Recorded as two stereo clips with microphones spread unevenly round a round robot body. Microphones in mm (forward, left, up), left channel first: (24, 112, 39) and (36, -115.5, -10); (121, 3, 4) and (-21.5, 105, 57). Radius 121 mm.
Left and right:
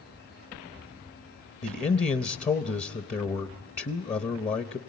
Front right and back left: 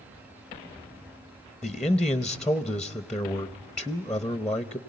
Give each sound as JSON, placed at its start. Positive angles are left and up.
{"t": 1.6, "sound": "a man speaking", "azimuth_deg": 25, "distance_m": 0.8}